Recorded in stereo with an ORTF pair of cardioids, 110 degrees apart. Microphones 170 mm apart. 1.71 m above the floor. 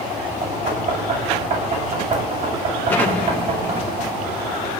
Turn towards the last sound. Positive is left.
turn(degrees=10)